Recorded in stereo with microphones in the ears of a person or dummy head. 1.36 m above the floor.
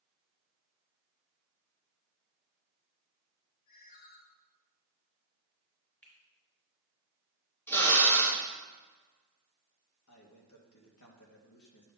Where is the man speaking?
80° left, 2 m.